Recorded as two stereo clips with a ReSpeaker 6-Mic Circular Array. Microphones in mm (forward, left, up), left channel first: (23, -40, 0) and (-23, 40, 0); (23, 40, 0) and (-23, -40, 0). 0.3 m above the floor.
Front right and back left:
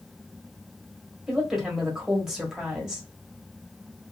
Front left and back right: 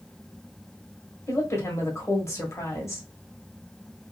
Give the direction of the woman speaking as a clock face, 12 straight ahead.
11 o'clock.